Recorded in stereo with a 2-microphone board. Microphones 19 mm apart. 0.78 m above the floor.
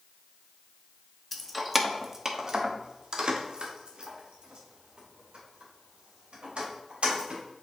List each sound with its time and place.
1.3 s keys jangling: 10° left (ahead or behind), 0.7 m; by 7.4 s 75° right (ahead or behind), 3 m